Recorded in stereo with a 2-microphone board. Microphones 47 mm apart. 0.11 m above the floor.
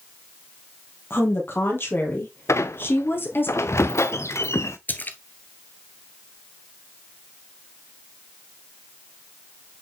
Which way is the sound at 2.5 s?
85° left.